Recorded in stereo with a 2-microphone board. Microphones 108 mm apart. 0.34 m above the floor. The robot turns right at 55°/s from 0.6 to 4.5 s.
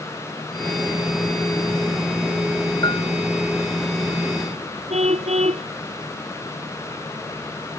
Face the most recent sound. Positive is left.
turn(degrees=-90)